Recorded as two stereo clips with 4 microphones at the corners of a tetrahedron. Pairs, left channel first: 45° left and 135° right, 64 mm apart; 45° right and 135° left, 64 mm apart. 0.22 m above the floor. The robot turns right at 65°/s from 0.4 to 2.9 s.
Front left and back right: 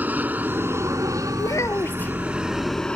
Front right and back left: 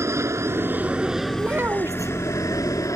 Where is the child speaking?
65° left; by 2.1 s 115° left.